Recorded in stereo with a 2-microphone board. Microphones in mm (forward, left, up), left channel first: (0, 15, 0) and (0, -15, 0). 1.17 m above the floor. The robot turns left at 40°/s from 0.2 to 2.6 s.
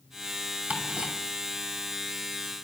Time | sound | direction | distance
0.7 | ticking | 60° right (ahead or behind) | 2.5 m